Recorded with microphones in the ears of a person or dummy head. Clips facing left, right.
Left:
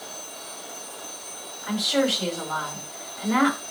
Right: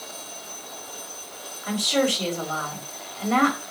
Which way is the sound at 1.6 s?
45° right (ahead or behind).